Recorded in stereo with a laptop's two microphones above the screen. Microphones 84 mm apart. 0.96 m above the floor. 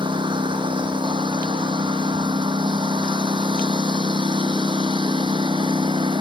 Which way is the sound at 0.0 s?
75° right (ahead or behind).